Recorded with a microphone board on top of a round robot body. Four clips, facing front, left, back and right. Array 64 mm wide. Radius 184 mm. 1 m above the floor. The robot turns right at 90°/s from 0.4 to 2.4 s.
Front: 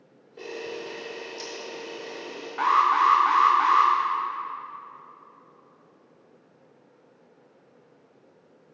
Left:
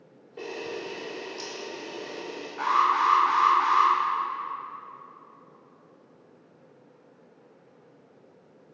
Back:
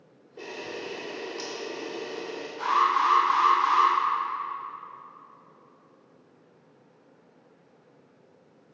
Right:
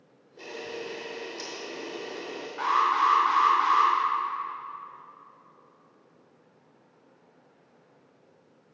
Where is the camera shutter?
85° left, 0.6 m; by 2.5 s 95° right, 0.6 m.